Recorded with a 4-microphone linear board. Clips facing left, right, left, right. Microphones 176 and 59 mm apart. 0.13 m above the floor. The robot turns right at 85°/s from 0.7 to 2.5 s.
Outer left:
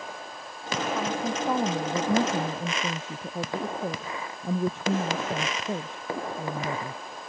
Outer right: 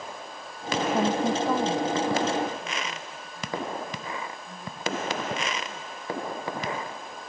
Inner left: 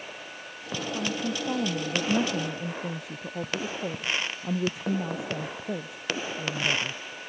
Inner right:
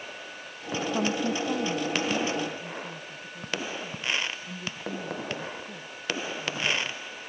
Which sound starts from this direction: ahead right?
A woman speaking, at 0.9 s.